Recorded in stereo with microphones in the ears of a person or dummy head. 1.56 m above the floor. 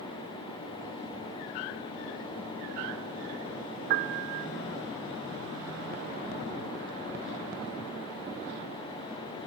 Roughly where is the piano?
Right.